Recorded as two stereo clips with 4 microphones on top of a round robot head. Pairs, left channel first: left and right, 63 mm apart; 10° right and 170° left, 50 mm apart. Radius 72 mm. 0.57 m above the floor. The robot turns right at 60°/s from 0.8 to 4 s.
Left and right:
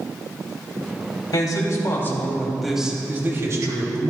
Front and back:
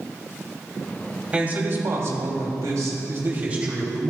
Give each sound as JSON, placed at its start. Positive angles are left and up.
{"t": 1.3, "sound": "a man speaking", "azimuth_deg": 100, "distance_m": 3.0}